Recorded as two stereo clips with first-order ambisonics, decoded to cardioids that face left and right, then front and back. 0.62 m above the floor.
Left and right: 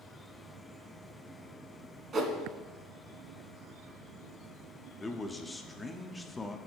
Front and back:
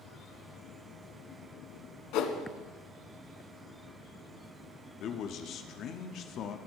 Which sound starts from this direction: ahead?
A man speaking, at 5.0 s.